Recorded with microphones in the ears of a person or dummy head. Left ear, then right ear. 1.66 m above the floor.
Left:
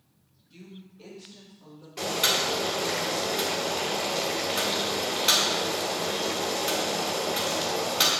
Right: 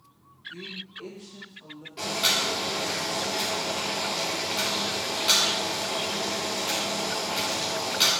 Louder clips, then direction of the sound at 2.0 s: Even; 20° left (ahead or behind).